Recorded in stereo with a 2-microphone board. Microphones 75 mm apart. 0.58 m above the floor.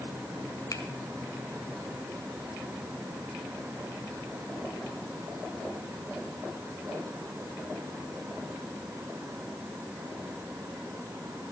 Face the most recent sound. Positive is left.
turn(degrees=50)  # may be behind; listen again after turning